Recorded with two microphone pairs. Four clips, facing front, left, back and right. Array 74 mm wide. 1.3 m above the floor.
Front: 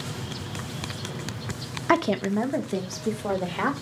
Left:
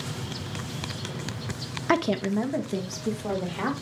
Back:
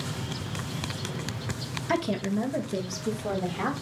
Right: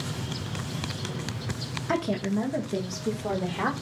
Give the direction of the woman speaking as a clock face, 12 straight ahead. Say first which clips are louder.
Left 3 dB, front 5 dB; 11 o'clock.